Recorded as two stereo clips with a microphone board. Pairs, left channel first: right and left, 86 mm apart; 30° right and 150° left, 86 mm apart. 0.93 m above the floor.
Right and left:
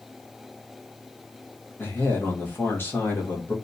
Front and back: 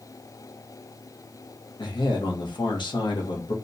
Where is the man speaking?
30° right, 1.2 m.